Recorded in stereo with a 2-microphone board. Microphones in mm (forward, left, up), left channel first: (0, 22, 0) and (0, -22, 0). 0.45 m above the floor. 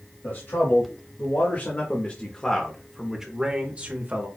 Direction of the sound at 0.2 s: 65° left (ahead or behind).